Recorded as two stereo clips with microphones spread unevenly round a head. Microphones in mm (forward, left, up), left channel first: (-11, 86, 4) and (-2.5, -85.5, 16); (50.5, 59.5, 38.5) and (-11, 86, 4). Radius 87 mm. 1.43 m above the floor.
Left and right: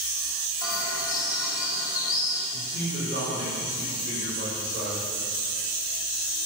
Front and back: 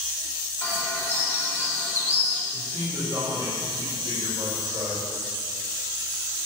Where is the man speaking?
125° right, 4.5 m.